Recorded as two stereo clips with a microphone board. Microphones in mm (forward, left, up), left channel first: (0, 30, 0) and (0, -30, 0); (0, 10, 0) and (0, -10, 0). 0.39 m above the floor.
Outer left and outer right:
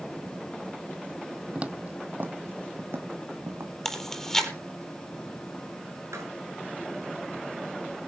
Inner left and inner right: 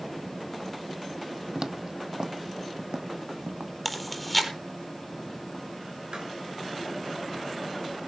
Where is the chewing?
5° left (ahead or behind), 4 m.